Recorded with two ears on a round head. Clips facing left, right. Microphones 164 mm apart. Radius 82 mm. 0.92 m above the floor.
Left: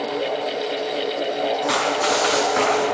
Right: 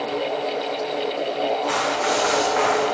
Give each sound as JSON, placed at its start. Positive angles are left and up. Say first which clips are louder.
{"t": 1.7, "sound": "running footsteps", "louder": "left 1 dB", "side_deg": 50, "distance_m": 5.5}